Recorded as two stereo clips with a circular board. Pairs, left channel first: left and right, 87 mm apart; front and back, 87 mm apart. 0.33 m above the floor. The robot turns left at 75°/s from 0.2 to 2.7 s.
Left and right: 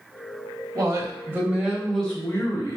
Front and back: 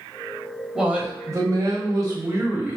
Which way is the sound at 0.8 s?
100° right.